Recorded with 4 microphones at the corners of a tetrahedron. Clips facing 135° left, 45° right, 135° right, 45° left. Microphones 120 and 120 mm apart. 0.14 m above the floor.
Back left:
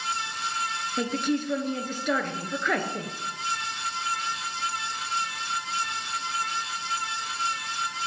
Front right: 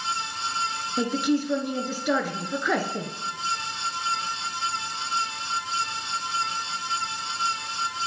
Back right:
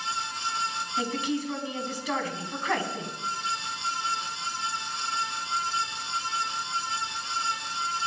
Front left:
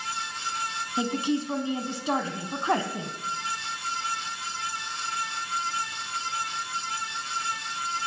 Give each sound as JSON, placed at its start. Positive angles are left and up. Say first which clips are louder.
{"t": 1.0, "sound": "a woman speaking", "louder": "front right 3 dB, front left 3 dB", "azimuth_deg": 30, "distance_m": 1.3}